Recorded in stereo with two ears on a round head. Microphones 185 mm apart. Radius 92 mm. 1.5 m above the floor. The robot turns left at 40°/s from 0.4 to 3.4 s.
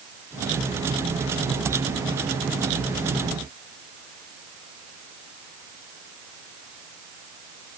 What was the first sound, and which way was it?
Only background noise.